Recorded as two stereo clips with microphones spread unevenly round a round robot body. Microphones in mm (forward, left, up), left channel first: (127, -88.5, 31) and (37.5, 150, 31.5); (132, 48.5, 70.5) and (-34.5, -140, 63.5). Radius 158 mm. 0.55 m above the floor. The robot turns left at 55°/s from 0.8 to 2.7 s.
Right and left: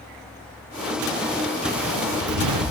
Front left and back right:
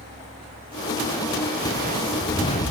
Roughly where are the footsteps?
Behind.